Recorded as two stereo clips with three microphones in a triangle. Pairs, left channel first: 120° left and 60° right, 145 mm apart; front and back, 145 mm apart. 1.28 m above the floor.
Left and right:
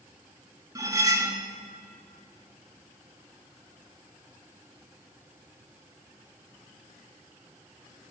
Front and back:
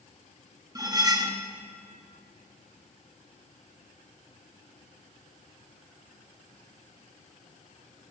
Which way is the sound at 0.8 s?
120° right.